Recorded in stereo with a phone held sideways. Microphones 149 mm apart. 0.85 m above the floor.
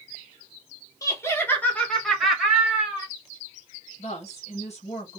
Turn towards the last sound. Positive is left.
turn(degrees=55)  # may be behind; listen again after turning